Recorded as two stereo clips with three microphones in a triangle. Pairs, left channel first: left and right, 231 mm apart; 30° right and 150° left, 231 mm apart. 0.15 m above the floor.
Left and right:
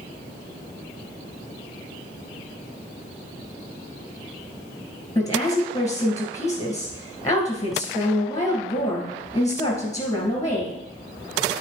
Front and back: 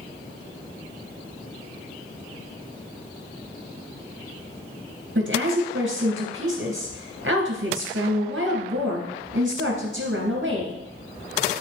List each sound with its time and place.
5.2 s a woman speaking: 160° left, 2.5 m